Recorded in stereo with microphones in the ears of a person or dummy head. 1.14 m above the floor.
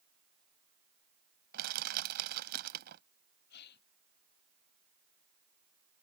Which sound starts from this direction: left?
A gasp, at 3.5 s.